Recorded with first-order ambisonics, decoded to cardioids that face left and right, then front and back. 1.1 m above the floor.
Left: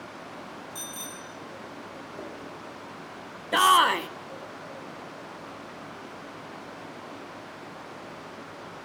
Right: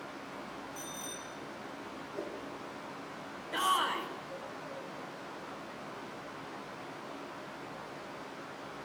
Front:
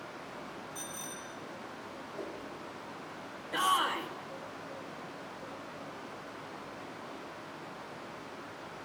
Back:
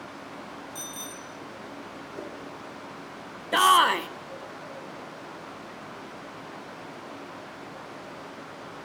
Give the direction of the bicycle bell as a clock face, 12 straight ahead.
8 o'clock.